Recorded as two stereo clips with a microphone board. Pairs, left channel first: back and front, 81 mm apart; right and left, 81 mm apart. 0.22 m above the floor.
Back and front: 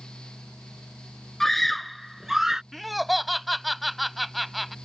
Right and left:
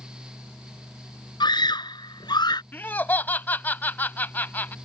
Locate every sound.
1.4 s a scream: 95° right; by 2.6 s 80° right
2.7 s laughter: 90° right